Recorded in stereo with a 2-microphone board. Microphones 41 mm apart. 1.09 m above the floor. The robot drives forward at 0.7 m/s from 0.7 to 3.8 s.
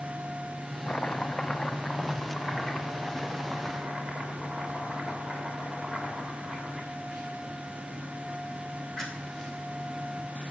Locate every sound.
0.9 s chopping: 30° left (ahead or behind), 0.6 m; by 9.5 s 5° left (ahead or behind), 2.5 m